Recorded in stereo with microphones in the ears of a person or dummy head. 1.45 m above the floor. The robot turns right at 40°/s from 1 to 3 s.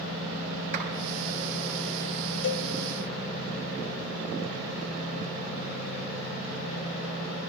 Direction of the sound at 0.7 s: 50° right (ahead or behind).